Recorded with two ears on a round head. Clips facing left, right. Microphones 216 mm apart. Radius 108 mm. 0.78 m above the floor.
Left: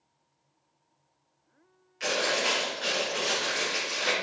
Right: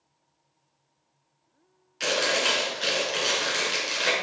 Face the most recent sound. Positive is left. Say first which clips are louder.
# right 2 dB
turn(degrees=-55)  # may be behind; listen again after turning